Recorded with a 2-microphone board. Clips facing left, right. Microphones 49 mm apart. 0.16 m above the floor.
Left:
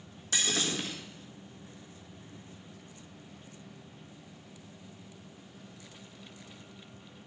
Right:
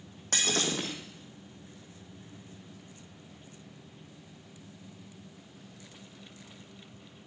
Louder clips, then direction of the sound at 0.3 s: Right 2 dB; 65° right (ahead or behind).